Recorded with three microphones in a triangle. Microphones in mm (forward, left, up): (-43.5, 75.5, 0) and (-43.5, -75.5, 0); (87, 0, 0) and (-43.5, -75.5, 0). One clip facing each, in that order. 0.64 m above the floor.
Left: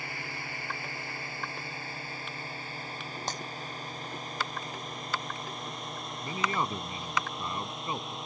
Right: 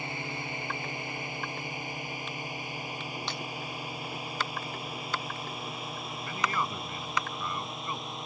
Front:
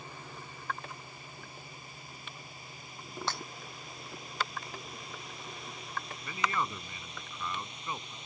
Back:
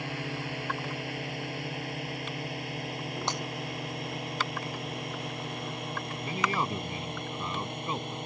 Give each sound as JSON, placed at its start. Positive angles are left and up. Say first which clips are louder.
{"t": 0.0, "sound": "a drone", "louder": "right 4 dB, back 11 dB", "azimuth_deg": -160}
{"t": 3.3, "sound": "breaking glass", "louder": "left 1 dB, back 2 dB", "azimuth_deg": 140}
{"t": 6.2, "sound": "a man speaking", "louder": "left 1 dB, back 3 dB", "azimuth_deg": 155}